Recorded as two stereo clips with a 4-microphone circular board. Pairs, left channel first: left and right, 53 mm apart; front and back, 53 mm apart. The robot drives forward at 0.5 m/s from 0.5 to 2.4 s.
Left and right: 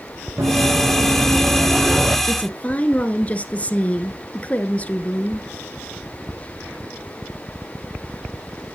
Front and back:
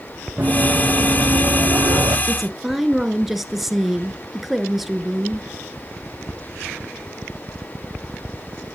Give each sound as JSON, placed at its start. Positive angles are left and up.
{"t": 0.4, "sound": "running footsteps", "azimuth_deg": -115, "distance_m": 3.5}
{"t": 2.3, "sound": "a woman speaking", "azimuth_deg": 90, "distance_m": 1.2}